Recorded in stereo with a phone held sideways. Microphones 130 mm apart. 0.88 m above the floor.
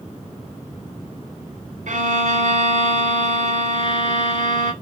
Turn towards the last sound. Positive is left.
turn(degrees=-65)  # may be behind; listen again after turning